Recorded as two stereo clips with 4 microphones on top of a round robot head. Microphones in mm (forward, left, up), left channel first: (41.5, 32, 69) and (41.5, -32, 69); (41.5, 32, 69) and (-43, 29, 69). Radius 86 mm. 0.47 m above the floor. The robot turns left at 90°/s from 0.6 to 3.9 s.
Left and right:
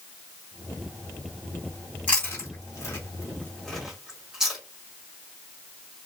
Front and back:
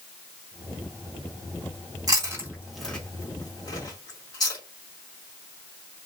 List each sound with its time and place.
2.1 s chewing: 155° left, 1.7 m; by 4.6 s 10° right, 1.7 m